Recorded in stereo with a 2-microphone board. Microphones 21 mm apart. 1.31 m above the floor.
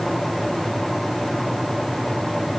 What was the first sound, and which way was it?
Only background noise.